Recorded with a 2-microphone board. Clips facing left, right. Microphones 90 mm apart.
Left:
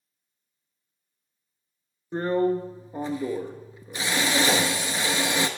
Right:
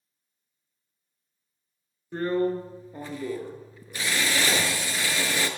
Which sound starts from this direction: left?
A drill, at 2.1 s.